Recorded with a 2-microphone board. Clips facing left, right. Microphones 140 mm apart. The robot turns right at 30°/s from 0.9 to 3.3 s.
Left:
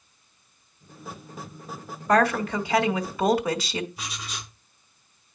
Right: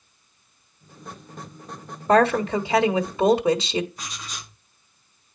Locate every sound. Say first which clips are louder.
2.1 s a woman speaking: right 3 dB; 30° right (ahead or behind), 1.0 m; by 3.9 s 25° right (ahead or behind), 1.0 m
4.0 s writing: left 1 dB; 10° left (ahead or behind), 7.5 m